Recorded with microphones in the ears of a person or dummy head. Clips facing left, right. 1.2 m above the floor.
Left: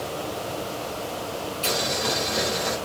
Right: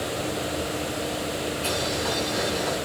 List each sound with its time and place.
1.6 s boiling: 85° left, 4 m